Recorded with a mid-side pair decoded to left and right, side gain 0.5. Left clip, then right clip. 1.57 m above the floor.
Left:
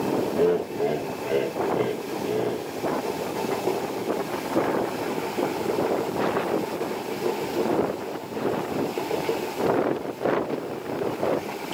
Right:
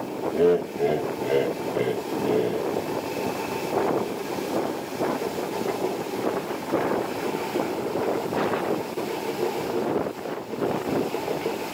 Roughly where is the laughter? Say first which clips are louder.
Right 5 dB; ahead.